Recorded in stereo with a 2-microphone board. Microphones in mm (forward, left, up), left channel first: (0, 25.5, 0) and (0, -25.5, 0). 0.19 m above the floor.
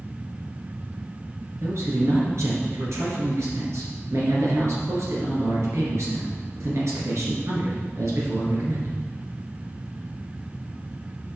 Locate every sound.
1.6 s a man speaking: 65° right (ahead or behind), 2.5 m